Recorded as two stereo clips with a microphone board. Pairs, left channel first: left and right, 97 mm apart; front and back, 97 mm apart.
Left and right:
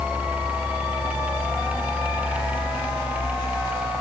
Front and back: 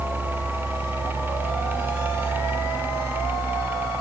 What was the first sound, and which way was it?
Only background noise.